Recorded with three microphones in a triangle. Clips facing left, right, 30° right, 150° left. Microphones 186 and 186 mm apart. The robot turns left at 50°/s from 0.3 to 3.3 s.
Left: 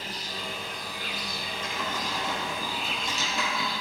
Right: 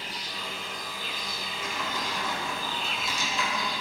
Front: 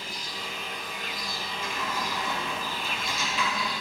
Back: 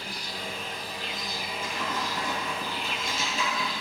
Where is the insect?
130° left, 1.3 m; by 3.8 s 20° right, 1.3 m.